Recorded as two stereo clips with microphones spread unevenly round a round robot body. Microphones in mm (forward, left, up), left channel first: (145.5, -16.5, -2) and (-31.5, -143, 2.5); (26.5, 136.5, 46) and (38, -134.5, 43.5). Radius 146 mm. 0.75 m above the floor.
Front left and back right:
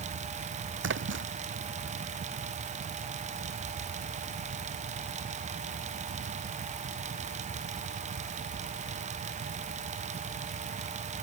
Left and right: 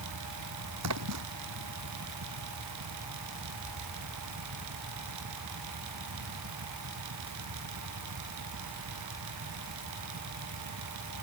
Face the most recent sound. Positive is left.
turn(degrees=-120)